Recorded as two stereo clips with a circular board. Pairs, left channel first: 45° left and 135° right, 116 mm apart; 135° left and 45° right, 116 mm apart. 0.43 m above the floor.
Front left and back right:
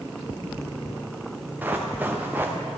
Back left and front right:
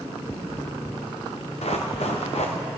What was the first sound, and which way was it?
Running footsteps, 150° left.